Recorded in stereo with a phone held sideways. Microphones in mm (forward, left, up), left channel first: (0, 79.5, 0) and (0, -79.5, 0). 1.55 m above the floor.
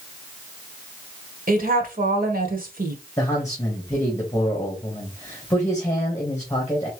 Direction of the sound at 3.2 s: 20° left (ahead or behind).